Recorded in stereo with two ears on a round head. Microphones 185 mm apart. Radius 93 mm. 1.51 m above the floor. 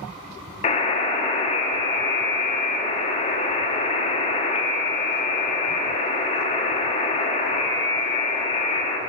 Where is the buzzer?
35° left (ahead or behind), 1.1 m.